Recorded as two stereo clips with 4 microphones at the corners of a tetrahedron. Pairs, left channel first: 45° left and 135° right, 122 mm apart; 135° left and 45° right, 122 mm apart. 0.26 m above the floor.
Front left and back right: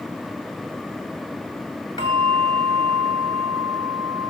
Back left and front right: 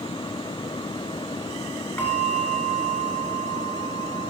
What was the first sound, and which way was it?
A bell, 75° left.